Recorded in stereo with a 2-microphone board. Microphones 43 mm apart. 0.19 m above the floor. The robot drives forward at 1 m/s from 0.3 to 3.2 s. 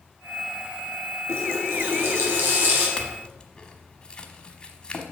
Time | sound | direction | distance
1.3 | a running tap | 70° right (ahead or behind) | 2 m
3.0 | a clink | 20° left (ahead or behind) | 1.0 m